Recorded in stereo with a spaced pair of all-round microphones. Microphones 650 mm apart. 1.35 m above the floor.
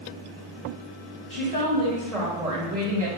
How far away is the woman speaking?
About 1.6 m.